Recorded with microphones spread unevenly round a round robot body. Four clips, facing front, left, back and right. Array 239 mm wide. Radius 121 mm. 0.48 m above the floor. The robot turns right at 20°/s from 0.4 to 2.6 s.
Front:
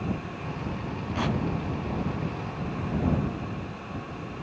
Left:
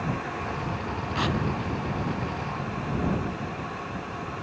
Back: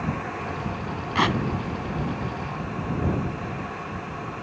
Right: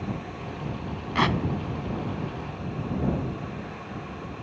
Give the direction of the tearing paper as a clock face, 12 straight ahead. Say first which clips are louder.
Right 4 dB, back 6 dB; 5 o'clock.